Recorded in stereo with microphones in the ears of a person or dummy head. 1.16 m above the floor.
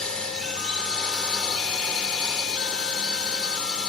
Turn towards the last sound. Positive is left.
turn(degrees=5)  # may be behind; listen again after turning